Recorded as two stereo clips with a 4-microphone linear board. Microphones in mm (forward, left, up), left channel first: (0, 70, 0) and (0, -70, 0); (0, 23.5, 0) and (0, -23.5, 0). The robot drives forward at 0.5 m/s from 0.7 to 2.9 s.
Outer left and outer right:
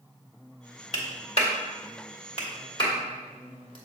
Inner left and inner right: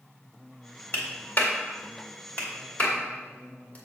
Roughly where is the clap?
Left.